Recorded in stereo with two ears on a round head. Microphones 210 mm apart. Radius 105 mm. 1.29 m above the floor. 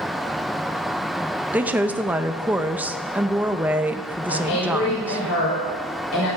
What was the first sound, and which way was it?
A woman speaking, 5° right (ahead or behind).